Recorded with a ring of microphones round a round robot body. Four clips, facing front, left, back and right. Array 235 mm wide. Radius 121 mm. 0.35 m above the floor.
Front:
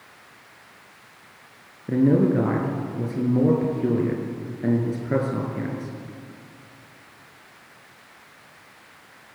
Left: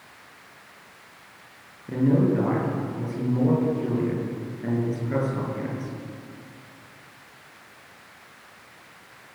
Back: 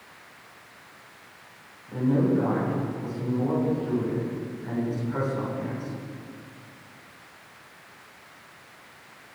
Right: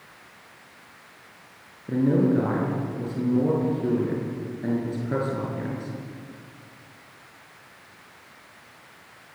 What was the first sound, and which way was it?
A man speaking, 15° right.